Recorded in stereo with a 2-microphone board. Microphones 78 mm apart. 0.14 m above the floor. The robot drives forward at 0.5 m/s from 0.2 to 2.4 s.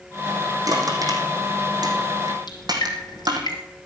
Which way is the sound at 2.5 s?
65° left (ahead or behind).